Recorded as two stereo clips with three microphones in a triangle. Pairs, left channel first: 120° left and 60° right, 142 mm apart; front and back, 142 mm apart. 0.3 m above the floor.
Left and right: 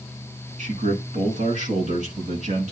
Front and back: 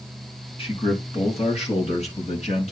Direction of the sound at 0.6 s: 45° right.